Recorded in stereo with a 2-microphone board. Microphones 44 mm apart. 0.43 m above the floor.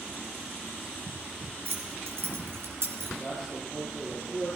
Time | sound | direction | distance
1.6 | keys jangling | 70° right (ahead or behind) | 3.5 m
3.2 | a man speaking | 20° right (ahead or behind) | 8.5 m